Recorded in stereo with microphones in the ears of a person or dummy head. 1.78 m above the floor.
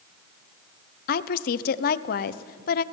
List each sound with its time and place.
1.1 s a woman speaking: 50° left (ahead or behind), 0.9 m